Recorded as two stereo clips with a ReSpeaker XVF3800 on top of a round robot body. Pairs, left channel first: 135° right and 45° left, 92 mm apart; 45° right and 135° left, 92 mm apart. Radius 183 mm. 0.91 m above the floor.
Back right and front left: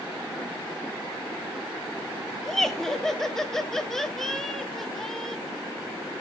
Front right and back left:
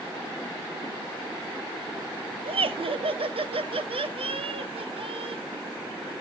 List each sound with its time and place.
2.5 s laughter: 140° left, 1.2 m